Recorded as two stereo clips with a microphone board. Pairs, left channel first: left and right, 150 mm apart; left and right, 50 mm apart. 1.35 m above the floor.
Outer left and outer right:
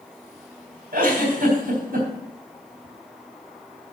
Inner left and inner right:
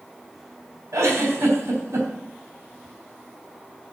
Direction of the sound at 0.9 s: 75° right (ahead or behind).